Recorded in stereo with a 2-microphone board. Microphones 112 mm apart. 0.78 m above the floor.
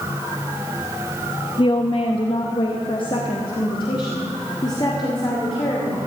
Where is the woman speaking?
40° left (ahead or behind), 0.7 m; by 6.0 s 35° left (ahead or behind), 2.5 m.